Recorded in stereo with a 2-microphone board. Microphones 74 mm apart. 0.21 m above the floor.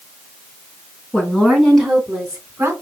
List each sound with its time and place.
1.1 s a woman speaking: 15° left (ahead or behind), 2.5 m; by 2.7 s 30° right (ahead or behind), 1.8 m